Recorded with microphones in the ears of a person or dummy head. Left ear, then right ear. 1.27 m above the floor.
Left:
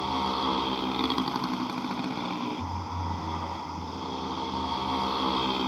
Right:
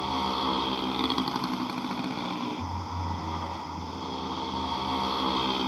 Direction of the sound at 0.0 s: Centre (ahead or behind).